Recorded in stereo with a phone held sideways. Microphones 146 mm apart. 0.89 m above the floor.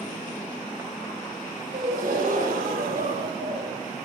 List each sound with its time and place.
1.7 s a gasp: 80° right, 10 m